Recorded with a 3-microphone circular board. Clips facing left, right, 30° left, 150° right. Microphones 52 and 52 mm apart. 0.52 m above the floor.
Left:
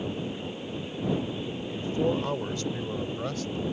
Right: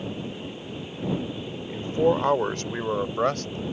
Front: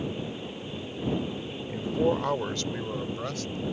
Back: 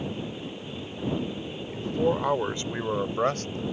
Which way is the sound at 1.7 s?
45° right.